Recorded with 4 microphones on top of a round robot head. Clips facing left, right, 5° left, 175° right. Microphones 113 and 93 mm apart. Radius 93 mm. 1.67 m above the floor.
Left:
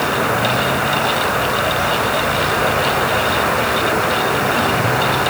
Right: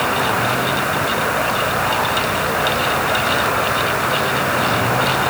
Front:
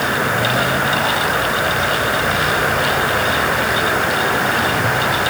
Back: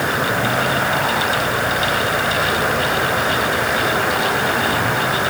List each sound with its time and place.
Only background noise.